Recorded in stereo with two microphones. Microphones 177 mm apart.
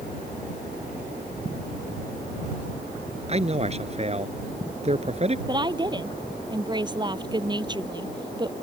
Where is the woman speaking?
25° right (ahead or behind).